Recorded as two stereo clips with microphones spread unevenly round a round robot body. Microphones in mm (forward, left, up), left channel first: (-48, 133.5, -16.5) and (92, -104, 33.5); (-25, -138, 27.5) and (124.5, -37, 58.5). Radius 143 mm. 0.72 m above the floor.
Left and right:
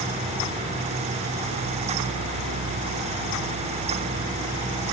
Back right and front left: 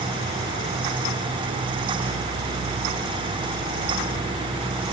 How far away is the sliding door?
No sliding door in this recording.